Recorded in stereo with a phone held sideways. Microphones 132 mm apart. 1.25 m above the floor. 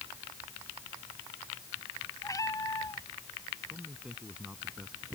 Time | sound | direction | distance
2.2 | a cat meowing | 25° left (ahead or behind) | ?
3.7 | a man speaking | 10° right (ahead or behind) | ?